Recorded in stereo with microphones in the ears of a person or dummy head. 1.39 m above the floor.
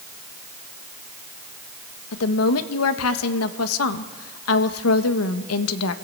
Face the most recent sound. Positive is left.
turn(degrees=85)